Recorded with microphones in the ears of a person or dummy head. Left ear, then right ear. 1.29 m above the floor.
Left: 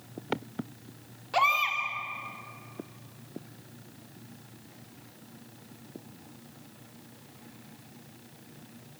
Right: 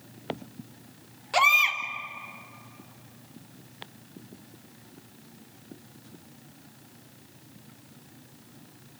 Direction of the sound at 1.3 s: 20° right (ahead or behind).